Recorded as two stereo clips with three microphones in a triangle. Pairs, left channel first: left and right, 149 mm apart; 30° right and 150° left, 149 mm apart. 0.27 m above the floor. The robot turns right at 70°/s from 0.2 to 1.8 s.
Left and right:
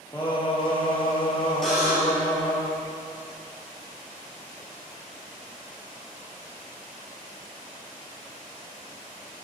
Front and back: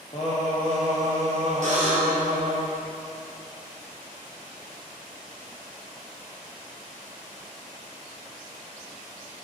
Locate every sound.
0.1 s singing: 20° left, 2 m; by 2.6 s 130° left, 2 m
1.6 s a buzzer: straight behind, 2 m; by 2.2 s 170° right, 2 m